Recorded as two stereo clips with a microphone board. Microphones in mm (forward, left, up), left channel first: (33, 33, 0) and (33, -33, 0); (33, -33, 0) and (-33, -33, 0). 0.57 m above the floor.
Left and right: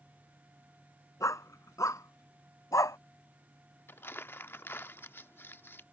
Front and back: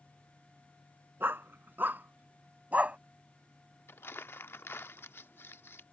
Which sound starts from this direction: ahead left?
Crumpling, at 3.9 s.